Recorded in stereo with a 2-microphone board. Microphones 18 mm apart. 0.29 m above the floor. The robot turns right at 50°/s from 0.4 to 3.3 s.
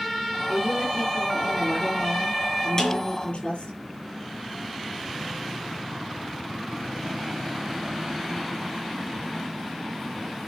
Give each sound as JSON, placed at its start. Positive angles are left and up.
{"t": 0.5, "sound": "a woman speaking", "azimuth_deg": -40, "distance_m": 7.0}
{"t": 2.8, "sound": "a snare drum", "side_deg": 30, "distance_m": 4.5}